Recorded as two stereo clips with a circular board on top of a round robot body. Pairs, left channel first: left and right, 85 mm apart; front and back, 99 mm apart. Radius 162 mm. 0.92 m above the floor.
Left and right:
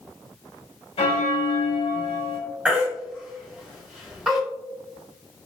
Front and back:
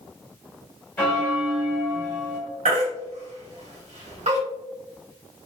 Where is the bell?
75° left, 1.7 m.